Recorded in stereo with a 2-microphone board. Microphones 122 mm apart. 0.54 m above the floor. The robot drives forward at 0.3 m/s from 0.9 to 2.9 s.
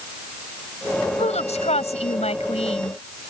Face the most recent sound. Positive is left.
turn(degrees=60)  # may be behind; listen again after turning